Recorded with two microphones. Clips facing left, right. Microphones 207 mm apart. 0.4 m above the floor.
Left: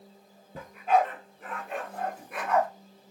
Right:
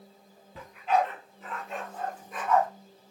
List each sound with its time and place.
0.6 s a dog barking: 45° left (ahead or behind), 2 m; by 2.7 s 80° left, 1.6 m